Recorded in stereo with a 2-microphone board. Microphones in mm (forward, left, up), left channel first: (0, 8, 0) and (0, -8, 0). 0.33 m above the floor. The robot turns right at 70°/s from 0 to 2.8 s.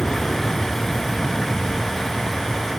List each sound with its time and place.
0.0 s an aircraft: 65° left (ahead or behind); by 2.8 s 75° right (ahead or behind)